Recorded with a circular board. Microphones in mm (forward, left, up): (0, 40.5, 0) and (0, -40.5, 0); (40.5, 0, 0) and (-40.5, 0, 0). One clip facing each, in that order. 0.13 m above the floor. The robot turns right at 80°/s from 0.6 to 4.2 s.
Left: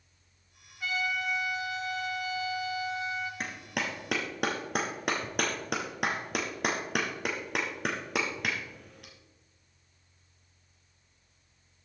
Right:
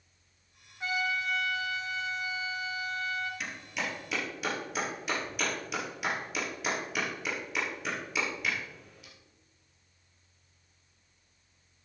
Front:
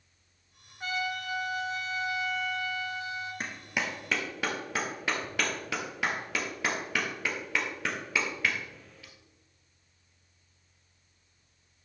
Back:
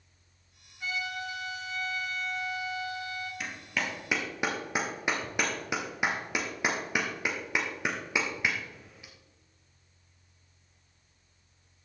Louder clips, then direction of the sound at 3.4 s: Left 2 dB, back 1 dB; 45° left.